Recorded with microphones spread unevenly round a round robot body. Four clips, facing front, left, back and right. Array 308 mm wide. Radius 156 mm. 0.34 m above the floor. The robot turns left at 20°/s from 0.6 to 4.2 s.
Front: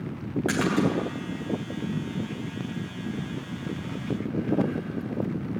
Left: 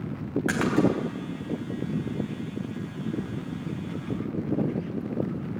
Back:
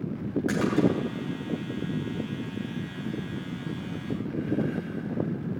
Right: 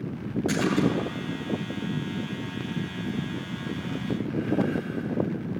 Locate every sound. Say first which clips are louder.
0.5 s a splash: left 1 dB, even; 70° left, 3 m; by 0.9 s 65° left, 3 m